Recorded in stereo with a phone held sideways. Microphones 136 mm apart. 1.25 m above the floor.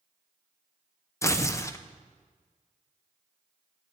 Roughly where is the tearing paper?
Left.